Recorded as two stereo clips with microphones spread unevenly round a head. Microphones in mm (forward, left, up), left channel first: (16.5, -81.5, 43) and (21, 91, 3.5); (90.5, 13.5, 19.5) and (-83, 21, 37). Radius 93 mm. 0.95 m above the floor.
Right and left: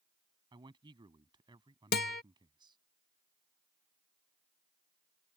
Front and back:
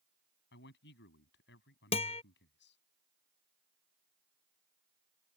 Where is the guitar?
65° right.